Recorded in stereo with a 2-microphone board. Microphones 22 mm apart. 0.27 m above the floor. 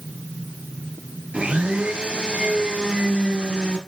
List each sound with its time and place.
1.3 s a blender: 60° right (ahead or behind), 4 m